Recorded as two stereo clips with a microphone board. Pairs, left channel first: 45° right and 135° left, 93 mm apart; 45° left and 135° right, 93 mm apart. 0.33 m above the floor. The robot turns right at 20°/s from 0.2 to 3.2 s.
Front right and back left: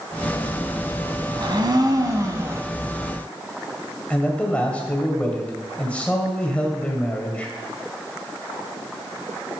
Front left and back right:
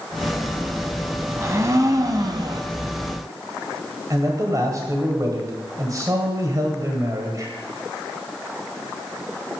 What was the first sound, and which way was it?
A blender, 165° left.